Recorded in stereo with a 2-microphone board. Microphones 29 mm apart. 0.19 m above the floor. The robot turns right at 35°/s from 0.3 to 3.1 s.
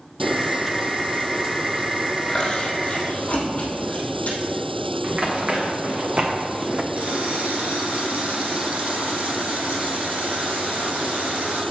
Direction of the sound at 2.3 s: 15° left (ahead or behind).